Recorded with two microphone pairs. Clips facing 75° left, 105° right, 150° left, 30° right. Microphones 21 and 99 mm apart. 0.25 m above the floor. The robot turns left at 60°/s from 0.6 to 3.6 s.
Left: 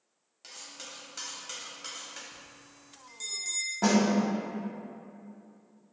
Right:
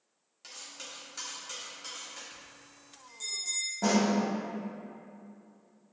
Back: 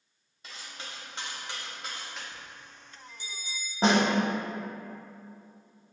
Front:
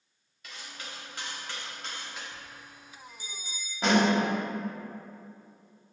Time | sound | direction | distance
0.4 | cutlery clinking | 155° left | 0.6 m
2.3 | a bell | 65° left | 1.2 m
3.8 | a snare drum | 115° left | 0.6 m